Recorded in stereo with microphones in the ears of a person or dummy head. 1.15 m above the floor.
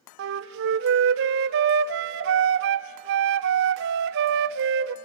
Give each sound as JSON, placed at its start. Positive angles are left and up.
{"t": 0.2, "sound": "a flute", "side_deg": -65, "distance_m": 0.7}